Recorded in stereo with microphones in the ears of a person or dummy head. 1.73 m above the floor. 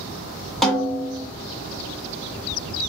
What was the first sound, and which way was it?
A snare drum, centre (ahead or behind).